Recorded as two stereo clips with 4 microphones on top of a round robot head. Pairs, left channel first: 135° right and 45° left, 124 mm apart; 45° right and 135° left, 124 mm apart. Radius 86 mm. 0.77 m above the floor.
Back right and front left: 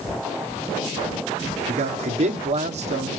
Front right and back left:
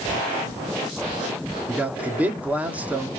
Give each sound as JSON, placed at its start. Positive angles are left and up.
{"t": 1.7, "sound": "a man speaking", "azimuth_deg": 60, "distance_m": 2.0}